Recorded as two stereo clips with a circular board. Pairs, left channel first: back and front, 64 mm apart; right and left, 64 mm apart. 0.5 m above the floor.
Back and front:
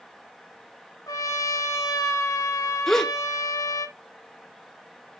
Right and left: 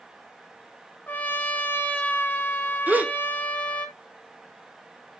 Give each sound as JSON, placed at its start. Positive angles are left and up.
{"t": 1.1, "sound": "a trumpet", "azimuth_deg": -150, "distance_m": 1.3}
{"t": 2.9, "sound": "a gasp", "azimuth_deg": 100, "distance_m": 0.8}